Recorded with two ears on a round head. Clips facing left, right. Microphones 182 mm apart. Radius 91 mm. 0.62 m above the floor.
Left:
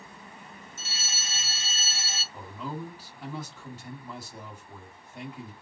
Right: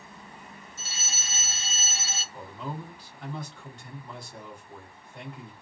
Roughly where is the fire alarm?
Right.